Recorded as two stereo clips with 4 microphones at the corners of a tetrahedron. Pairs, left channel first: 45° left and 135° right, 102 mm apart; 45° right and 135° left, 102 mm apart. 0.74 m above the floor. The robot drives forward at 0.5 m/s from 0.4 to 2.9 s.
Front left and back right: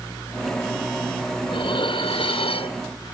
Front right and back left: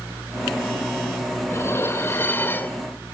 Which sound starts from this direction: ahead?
Dishes clattering, at 1.5 s.